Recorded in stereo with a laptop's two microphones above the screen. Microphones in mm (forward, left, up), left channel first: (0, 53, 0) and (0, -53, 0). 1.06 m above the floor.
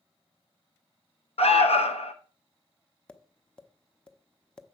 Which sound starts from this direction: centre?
Tapping, at 3.1 s.